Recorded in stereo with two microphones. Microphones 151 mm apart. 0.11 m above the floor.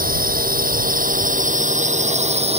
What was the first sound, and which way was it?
A drone, 70° right (ahead or behind).